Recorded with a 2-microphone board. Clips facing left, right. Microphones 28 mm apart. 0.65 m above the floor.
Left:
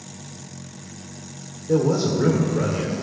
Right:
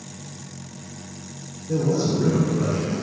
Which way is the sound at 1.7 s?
60° left (ahead or behind).